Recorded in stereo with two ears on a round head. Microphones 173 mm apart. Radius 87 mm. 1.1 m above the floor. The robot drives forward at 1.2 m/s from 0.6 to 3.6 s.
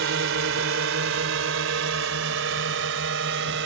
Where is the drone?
75° right (ahead or behind).